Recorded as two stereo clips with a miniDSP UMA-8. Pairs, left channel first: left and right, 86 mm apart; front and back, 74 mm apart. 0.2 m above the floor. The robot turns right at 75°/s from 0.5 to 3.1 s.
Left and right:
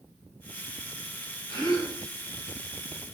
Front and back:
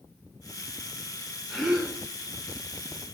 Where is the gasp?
85° left, 1.0 m; by 2.0 s 120° left, 1.0 m.